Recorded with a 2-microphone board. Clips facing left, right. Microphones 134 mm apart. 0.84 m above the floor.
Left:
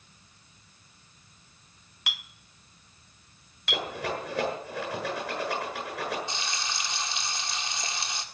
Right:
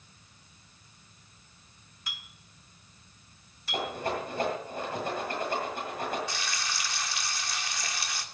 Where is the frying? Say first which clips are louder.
Left 1 dB; 25° left (ahead or behind), 1.5 m.